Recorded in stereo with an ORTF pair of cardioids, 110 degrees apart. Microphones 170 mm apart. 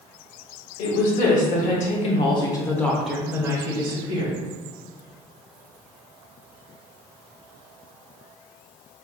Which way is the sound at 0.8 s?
65° left.